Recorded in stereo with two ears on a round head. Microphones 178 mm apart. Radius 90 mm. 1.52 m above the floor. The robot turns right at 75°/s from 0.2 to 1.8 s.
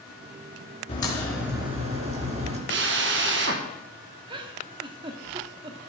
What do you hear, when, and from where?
0.9 s a crack: 145° left, 4.5 m; by 2.6 s 145° right, 4.5 m
2.7 s a drill: 60° right (ahead or behind), 1.8 m
4.3 s a giggle: 25° right (ahead or behind), 1.2 m